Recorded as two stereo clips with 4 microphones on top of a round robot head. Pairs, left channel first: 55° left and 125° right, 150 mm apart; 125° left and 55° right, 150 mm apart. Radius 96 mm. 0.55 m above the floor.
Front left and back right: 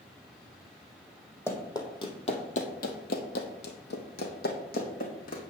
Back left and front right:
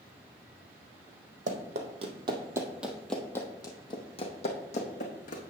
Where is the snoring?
No snoring in this recording.